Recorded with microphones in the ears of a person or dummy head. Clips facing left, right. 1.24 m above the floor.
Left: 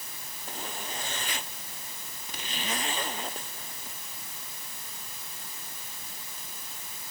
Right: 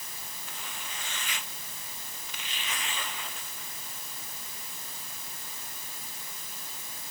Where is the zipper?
30° left (ahead or behind).